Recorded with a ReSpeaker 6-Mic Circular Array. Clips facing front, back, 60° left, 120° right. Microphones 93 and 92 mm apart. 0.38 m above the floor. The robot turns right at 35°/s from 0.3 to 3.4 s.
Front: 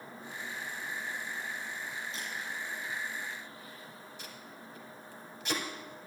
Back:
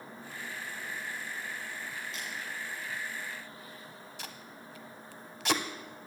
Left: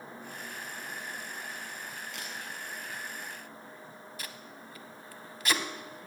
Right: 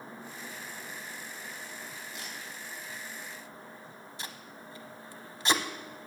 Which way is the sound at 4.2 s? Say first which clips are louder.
Back 1 dB, right 3 dB; straight behind.